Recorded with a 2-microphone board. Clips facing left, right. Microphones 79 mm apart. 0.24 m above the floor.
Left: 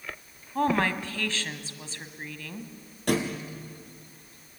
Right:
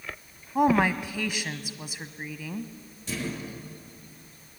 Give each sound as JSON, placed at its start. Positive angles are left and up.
{"t": 0.6, "sound": "a woman speaking", "side_deg": -15, "distance_m": 1.3}
{"t": 3.1, "sound": "a thud", "side_deg": 70, "distance_m": 4.5}